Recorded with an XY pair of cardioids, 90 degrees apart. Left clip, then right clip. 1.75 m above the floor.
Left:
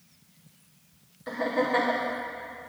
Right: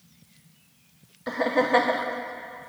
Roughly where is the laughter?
Ahead right.